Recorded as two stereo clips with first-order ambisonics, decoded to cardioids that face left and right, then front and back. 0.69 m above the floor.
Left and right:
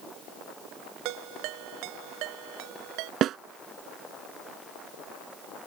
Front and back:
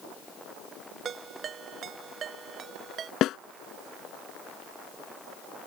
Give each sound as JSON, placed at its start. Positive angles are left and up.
{"t": 1.1, "sound": "a ringtone", "azimuth_deg": -115}
{"t": 3.2, "sound": "a snare drum", "azimuth_deg": -45}